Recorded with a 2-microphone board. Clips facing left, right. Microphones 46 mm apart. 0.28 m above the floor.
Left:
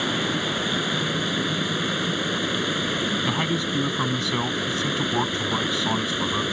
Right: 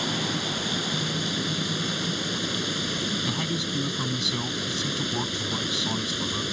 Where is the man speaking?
35° left (ahead or behind).